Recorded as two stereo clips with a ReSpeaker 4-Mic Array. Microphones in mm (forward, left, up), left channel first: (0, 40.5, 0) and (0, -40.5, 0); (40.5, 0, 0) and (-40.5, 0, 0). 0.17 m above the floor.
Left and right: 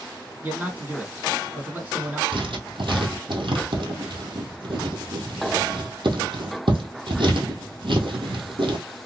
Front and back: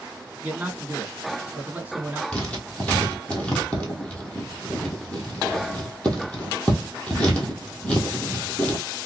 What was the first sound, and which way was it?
A man speaking, 135° right.